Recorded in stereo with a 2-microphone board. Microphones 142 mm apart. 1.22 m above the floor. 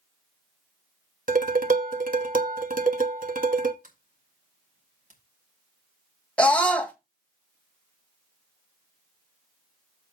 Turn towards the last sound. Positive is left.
turn(degrees=10)  # may be behind; listen again after turning